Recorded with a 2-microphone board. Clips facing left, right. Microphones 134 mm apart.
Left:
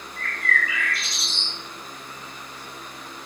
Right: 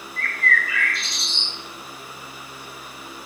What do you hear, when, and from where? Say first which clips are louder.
0.2 s a bird: right 2 dB; 10° left (ahead or behind), 1.6 m